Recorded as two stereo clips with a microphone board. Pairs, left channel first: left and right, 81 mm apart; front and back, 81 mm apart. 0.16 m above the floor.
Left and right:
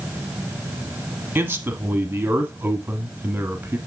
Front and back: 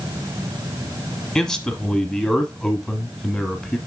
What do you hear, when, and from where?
1.4 s a man speaking: 75° right, 1.2 m